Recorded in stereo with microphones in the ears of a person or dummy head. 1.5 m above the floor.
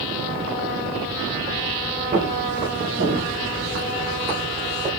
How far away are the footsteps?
About 1.6 m.